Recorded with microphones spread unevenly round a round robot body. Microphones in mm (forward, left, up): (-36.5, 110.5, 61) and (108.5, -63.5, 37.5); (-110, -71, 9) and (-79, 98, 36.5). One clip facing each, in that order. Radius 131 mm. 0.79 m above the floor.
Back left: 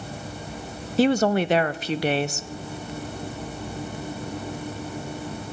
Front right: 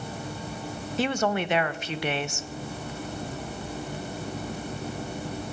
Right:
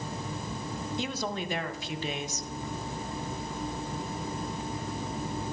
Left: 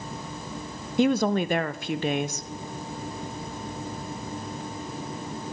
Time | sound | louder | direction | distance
1.0 | a woman speaking | back left 7 dB, left 15 dB | 85° left | 0.5 m